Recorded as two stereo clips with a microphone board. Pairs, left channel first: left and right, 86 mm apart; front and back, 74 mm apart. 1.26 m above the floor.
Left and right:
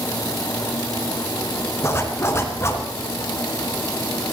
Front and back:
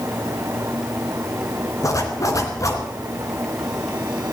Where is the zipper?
35° left, 2.5 m.